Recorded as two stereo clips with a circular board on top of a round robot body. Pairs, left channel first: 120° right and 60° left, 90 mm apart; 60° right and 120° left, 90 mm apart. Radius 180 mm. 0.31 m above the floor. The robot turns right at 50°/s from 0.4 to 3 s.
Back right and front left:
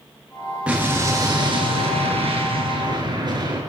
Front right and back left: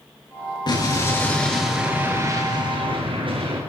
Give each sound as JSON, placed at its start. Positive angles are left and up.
{"t": 0.7, "sound": "an explosion", "azimuth_deg": -20, "distance_m": 7.5}